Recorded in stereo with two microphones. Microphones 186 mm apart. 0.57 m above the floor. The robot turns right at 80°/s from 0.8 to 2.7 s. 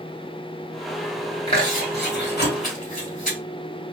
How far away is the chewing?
About 1.8 m.